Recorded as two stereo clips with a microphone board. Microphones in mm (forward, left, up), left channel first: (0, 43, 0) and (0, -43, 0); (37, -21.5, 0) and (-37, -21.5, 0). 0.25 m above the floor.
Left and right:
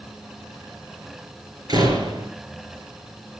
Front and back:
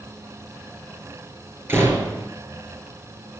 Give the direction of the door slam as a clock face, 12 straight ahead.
4 o'clock.